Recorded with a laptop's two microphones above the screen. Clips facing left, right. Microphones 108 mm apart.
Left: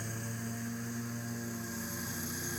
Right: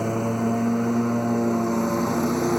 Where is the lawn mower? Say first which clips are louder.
Right 18 dB; 65° right (ahead or behind).